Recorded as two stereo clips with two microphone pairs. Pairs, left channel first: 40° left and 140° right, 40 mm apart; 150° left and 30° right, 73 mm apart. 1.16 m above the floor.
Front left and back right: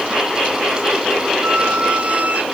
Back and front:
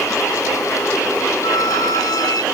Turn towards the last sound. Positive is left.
turn(degrees=170)